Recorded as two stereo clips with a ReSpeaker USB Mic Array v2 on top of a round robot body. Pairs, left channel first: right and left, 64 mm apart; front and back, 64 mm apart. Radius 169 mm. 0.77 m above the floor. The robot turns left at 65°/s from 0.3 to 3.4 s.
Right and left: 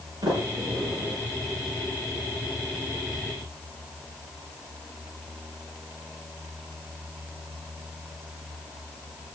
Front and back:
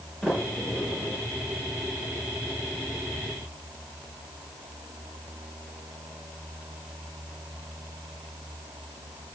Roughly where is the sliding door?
Left.